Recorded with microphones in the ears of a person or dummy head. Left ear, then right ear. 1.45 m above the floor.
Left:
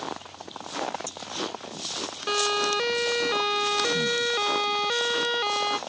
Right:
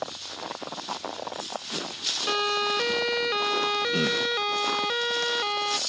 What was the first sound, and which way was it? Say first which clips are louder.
A siren: left 3 dB; 10° right (ahead or behind).